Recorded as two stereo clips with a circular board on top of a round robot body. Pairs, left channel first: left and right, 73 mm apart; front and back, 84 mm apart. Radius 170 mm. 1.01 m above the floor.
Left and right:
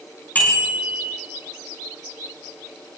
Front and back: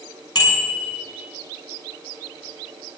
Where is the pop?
No pop in this recording.